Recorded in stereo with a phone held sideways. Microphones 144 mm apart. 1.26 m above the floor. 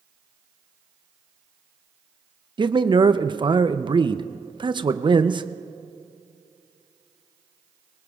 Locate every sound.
2.6 s a man speaking: 35° right (ahead or behind), 0.6 m